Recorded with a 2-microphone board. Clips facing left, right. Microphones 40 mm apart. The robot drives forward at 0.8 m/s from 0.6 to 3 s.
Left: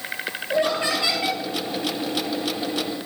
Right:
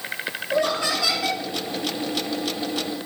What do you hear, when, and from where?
0.5 s laughter: 30° left (ahead or behind), 4 m; by 1.4 s 25° left (ahead or behind), 4.5 m